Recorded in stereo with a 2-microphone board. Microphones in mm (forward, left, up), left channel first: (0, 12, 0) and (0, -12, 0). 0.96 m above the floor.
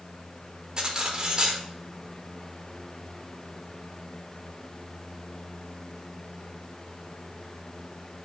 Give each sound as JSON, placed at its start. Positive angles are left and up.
{"t": 0.8, "sound": "cutlery clinking", "side_deg": -30, "distance_m": 1.3}